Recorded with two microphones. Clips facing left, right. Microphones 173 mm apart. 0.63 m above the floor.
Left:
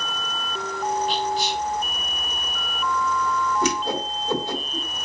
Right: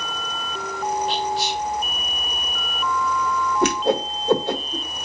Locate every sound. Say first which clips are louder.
1.1 s whispering: even; 70° right (ahead or behind), 2 m
3.6 s a whoosh: right 5 dB; 65° right (ahead or behind), 0.8 m